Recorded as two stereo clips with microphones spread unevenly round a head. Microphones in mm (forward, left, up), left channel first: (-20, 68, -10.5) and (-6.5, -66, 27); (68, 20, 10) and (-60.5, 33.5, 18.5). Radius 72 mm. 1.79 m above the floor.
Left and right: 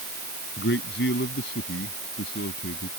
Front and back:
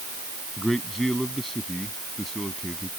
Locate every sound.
0.6 s a man speaking: 85° left